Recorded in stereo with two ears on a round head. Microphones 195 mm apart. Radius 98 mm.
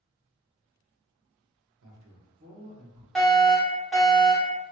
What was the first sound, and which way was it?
A man speaking, 65° right (ahead or behind).